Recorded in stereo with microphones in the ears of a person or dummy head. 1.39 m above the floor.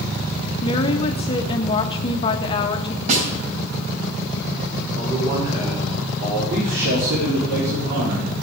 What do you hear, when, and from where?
0.6 s a woman speaking: 30° left (ahead or behind), 1.5 m
3.1 s a snare drum: 45° right (ahead or behind), 3.5 m
5.0 s a man speaking: 25° right (ahead or behind), 4.5 m
6.5 s a man speaking: 60° right (ahead or behind), 4.5 m